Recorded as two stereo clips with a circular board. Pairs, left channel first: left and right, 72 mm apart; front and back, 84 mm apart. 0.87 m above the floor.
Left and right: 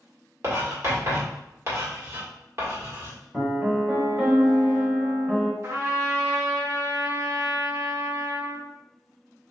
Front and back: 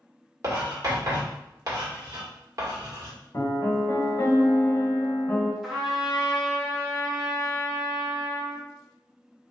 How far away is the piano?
About 1.1 m.